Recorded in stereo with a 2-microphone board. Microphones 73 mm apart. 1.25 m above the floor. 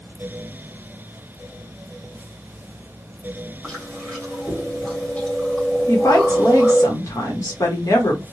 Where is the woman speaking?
50° left (ahead or behind), 1.1 m.